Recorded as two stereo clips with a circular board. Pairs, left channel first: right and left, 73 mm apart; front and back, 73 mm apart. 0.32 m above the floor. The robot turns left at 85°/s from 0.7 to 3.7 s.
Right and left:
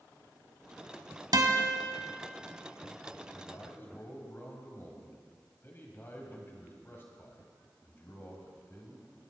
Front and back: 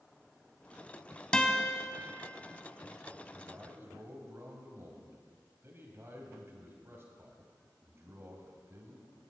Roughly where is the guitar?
Left.